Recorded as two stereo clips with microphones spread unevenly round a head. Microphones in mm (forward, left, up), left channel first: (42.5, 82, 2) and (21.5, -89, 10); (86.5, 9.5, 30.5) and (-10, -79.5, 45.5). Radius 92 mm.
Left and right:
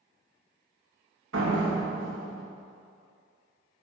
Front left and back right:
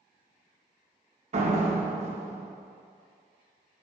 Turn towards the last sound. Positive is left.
turn(degrees=-105)